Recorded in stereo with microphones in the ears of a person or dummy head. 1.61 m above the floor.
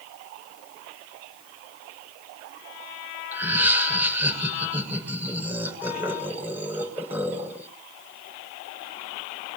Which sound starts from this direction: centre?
Laughter, at 3.3 s.